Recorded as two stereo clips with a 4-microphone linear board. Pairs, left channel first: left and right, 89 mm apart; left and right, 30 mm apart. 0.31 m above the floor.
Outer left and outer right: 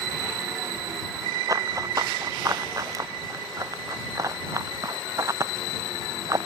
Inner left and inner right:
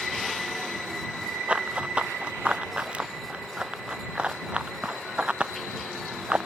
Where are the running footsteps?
40° right (ahead or behind); by 6.5 s 35° right (ahead or behind).